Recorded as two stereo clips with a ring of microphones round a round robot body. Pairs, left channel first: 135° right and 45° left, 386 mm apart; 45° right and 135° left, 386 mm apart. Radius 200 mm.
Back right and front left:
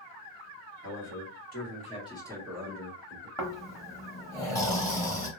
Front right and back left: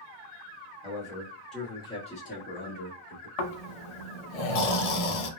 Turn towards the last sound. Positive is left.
turn(degrees=-55)